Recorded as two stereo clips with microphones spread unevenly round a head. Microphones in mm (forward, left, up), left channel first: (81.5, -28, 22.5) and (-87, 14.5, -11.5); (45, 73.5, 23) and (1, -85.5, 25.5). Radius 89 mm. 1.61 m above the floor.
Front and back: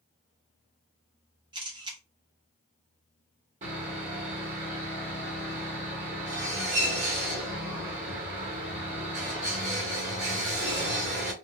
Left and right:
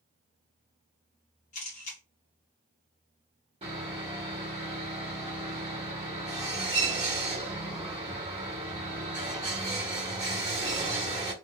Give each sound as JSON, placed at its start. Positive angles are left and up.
{"t": 1.5, "sound": "a camera shutter", "azimuth_deg": 100, "distance_m": 1.0}
{"t": 3.6, "sound": "sawing", "azimuth_deg": -150, "distance_m": 1.3}